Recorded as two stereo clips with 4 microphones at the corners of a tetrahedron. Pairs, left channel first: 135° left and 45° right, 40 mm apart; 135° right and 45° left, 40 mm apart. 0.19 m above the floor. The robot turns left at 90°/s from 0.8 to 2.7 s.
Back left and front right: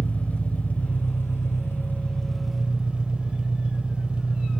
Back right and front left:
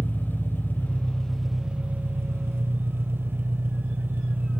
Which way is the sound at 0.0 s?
170° right.